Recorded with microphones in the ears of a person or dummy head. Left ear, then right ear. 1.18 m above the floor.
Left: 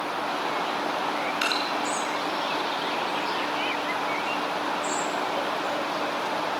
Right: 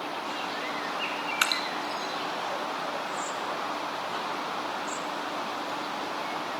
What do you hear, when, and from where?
1.4 s dripping: 35° right (ahead or behind), 1.5 m